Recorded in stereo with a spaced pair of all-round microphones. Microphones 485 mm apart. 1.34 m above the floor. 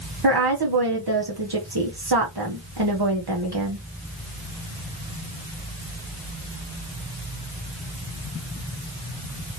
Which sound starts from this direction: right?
A woman speaking, at 0.2 s.